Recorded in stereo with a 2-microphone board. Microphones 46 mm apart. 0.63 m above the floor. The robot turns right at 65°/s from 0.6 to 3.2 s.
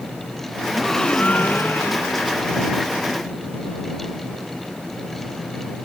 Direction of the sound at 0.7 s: 5° right.